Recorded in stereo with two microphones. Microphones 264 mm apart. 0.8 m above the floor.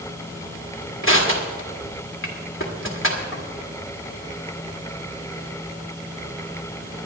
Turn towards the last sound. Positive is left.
turn(degrees=50)  # may be behind; listen again after turning